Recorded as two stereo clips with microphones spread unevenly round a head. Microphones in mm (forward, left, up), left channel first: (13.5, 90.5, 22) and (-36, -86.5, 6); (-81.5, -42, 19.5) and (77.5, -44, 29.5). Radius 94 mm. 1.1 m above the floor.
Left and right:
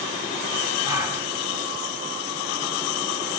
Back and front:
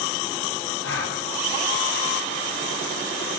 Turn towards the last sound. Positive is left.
turn(degrees=180)